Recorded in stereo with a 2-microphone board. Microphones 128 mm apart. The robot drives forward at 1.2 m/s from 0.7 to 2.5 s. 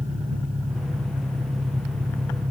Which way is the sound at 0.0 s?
65° right (ahead or behind).